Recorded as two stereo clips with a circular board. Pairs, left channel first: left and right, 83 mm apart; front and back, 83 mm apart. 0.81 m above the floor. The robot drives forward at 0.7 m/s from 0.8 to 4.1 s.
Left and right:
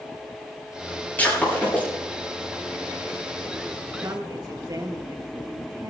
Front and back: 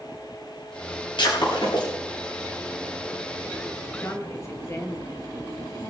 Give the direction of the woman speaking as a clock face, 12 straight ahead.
2 o'clock.